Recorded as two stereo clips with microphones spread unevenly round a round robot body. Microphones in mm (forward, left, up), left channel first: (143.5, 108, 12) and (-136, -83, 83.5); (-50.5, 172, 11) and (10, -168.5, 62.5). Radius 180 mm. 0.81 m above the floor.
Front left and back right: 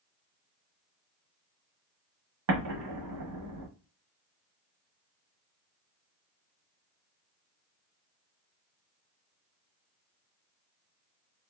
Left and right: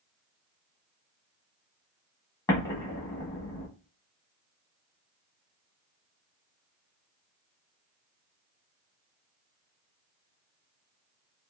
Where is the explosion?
175° left, 1.1 m.